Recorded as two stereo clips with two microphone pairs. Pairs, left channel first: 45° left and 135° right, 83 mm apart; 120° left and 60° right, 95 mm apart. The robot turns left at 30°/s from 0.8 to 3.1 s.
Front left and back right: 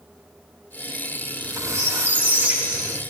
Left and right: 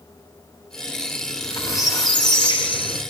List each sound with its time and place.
1.2 s a squeak: 175° right, 7 m; by 3.0 s 135° left, 7 m